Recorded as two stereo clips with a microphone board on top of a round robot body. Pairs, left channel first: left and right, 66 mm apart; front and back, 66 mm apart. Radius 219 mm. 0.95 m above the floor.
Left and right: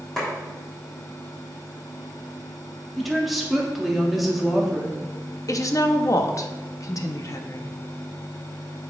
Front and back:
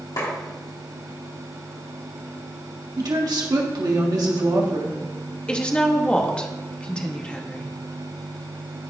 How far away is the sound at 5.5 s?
About 1.0 m.